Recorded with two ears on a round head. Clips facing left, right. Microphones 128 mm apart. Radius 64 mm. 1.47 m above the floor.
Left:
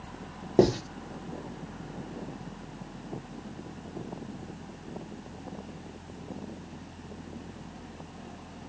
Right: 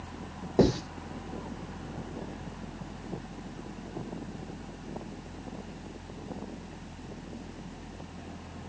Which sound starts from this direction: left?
Writing, at 0.6 s.